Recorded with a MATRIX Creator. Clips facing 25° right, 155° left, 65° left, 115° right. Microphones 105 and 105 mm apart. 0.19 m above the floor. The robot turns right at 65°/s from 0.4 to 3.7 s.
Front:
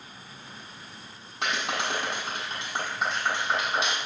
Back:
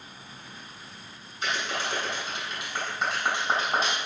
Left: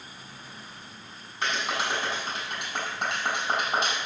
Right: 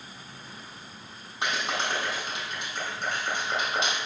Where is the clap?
40° right, 7.5 m; by 4.0 s 110° left, 7.5 m.